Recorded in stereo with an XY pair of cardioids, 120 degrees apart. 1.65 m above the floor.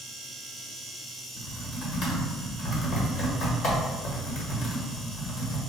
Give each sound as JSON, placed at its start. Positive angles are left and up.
{"t": 1.4, "sound": "typing on a keyboard", "azimuth_deg": 60, "distance_m": 1.5}